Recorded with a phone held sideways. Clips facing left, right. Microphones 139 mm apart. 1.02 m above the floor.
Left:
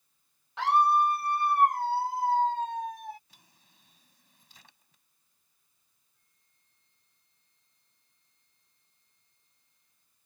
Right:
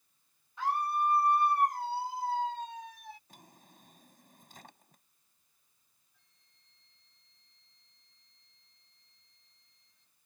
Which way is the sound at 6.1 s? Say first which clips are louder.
Right 2 dB; 85° right.